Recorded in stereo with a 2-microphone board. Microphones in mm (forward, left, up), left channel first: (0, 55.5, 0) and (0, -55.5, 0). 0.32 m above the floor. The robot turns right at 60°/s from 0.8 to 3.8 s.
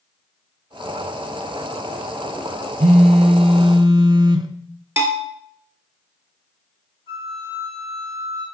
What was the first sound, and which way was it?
A phone buzzing, 105° right.